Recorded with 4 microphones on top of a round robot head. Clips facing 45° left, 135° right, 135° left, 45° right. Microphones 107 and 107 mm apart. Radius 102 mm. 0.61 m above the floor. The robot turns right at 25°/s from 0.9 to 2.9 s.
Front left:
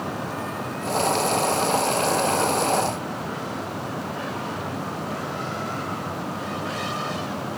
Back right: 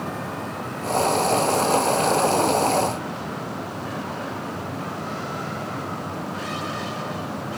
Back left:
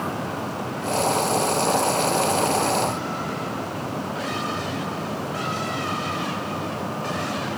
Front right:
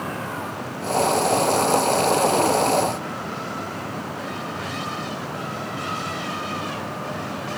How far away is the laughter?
No laughter in this recording.